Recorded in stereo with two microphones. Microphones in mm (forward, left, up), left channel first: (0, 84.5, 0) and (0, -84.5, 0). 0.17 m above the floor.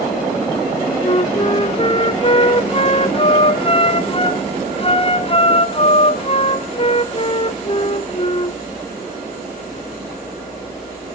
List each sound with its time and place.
1.0 s a flute: 35° left (ahead or behind), 0.9 m